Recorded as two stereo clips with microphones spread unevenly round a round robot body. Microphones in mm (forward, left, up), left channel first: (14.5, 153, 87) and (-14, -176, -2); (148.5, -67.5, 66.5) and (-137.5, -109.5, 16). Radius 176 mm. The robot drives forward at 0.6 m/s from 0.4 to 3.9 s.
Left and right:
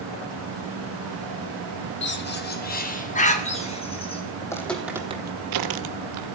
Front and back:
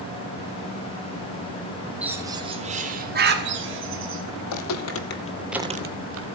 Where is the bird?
130° left, 1.1 m; by 4.2 s 165° left, 1.8 m.